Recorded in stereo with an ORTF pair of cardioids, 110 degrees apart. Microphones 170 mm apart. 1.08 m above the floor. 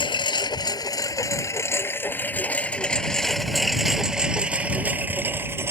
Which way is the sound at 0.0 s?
30° left.